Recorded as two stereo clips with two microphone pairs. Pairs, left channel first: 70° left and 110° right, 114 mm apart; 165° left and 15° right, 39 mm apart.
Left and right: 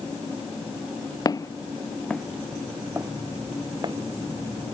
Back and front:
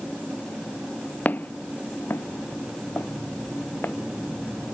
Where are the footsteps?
125° left; by 3.9 s 160° right.